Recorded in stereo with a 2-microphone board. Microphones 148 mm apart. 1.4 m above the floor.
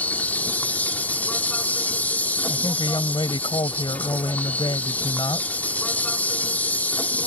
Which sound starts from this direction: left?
A woman speaking, at 2.5 s.